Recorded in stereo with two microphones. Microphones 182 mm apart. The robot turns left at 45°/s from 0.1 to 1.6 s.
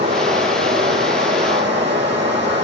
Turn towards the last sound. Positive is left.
turn(degrees=-100)